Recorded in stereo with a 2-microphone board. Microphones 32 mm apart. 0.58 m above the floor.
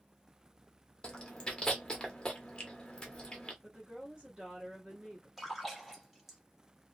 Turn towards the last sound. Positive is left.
turn(degrees=-5)  # may be behind; listen again after turning